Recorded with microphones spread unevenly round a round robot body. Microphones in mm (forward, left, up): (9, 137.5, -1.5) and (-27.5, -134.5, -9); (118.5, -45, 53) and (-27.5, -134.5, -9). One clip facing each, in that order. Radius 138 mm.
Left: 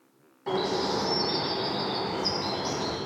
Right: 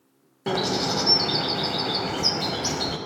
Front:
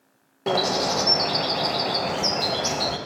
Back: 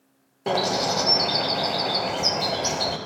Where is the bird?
60° right, 0.6 m.